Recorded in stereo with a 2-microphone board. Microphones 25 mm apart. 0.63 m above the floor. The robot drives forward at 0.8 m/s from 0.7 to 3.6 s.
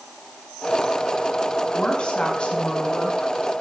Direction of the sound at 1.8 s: 35° left (ahead or behind).